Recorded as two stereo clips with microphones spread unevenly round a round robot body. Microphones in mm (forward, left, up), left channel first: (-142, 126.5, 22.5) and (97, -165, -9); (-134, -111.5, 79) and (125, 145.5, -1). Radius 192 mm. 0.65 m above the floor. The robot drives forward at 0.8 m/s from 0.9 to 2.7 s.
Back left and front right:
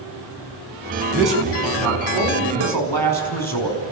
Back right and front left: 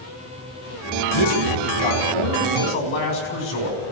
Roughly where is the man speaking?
Behind right.